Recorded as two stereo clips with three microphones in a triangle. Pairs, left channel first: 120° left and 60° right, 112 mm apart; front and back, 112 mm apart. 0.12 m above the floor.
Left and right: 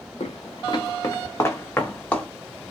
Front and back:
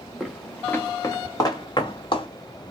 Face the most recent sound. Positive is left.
turn(degrees=40)